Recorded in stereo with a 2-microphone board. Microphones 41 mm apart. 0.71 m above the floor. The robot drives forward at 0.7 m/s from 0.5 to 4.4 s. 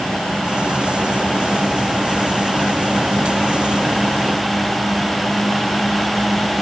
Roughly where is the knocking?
I don't hear knocking.